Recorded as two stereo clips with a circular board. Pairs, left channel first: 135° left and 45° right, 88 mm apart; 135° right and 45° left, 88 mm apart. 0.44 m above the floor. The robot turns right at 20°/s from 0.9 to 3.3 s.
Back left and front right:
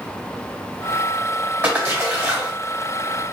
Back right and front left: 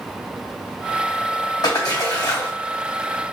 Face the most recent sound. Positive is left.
turn(degrees=-75)